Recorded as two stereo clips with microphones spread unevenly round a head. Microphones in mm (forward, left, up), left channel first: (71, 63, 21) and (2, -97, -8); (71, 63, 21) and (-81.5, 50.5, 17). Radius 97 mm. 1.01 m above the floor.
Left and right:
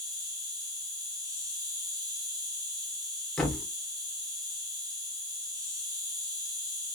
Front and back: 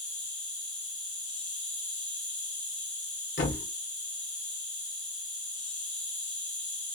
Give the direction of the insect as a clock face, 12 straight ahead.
2 o'clock.